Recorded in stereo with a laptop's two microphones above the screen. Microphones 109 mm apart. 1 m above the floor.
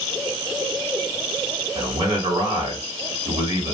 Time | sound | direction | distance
1.8 | a man speaking | 50° right (ahead or behind) | 2.5 m